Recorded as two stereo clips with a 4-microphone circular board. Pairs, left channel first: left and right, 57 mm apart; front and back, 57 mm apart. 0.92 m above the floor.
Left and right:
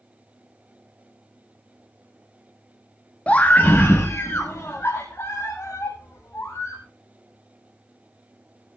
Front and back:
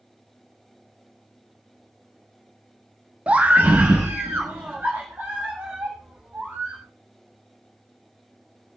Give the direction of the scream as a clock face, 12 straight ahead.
7 o'clock.